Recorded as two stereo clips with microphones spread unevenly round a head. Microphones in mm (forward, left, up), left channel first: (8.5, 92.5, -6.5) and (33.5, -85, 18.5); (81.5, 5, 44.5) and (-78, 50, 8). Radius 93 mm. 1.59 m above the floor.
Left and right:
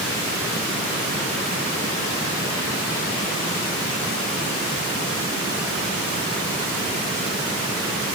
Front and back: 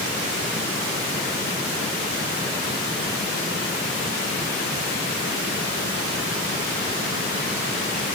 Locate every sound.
Only background noise.